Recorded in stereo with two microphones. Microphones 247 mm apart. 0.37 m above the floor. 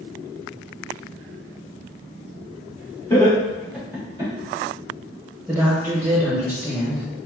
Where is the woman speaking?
10° right (ahead or behind), 1.0 m.